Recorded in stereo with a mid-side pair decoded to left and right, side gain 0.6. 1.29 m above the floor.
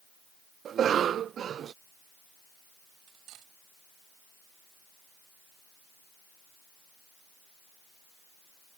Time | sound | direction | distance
0.7 | a cough | 45° right | ?
3.1 | cutlery clinking | 70° right | ?